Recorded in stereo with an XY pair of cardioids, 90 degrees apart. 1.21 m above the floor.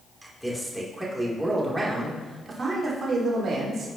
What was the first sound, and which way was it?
A man speaking, straight ahead.